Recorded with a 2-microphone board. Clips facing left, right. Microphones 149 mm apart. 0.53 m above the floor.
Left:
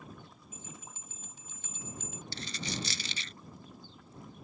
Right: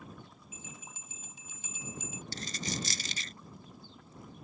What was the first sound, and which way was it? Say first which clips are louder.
A bell: left 1 dB; 10° right (ahead or behind).